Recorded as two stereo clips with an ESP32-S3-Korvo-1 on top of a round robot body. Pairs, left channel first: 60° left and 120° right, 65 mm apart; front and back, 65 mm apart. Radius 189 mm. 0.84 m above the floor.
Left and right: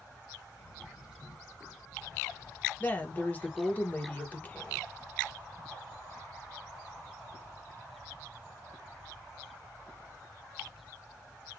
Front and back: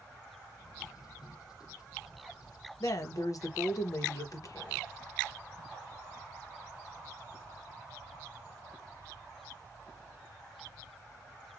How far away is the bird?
About 0.7 m.